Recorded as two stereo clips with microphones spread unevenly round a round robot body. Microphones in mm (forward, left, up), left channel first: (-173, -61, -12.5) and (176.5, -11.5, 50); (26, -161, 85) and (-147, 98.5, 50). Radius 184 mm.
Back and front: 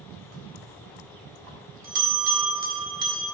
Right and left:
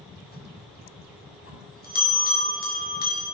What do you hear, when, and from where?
0.3 s a bell: straight ahead, 1.8 m